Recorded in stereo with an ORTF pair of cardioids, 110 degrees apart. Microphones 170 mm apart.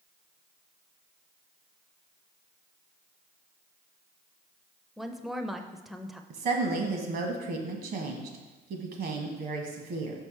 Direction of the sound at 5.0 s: Straight ahead.